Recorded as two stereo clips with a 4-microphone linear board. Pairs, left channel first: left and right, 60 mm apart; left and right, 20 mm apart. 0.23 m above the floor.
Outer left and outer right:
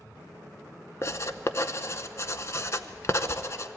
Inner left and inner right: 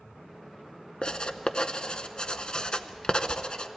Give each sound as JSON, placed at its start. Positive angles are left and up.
{"t": 1.0, "sound": "writing", "side_deg": 50, "distance_m": 0.7}